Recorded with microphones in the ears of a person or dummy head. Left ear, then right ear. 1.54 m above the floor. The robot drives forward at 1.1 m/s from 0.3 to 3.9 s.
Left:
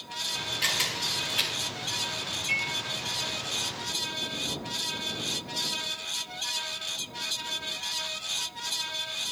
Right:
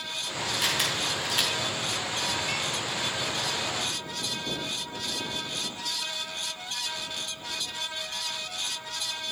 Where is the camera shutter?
15° right (ahead or behind), 4 m; by 1.5 s 20° right (ahead or behind), 3 m.